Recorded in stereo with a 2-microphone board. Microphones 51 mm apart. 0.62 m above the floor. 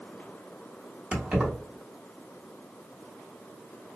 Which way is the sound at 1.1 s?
25° right (ahead or behind).